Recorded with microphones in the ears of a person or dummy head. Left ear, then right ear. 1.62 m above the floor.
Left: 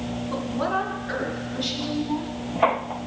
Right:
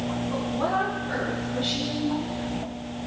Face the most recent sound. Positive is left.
turn(degrees=50)  # may be behind; listen again after turning